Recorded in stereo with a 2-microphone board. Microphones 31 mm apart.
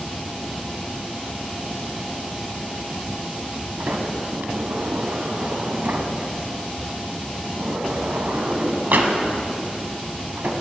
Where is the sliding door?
80° right, 1.0 m.